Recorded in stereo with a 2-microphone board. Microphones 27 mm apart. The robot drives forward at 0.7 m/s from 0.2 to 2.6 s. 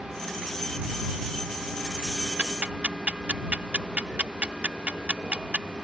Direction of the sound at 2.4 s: 65° right (ahead or behind).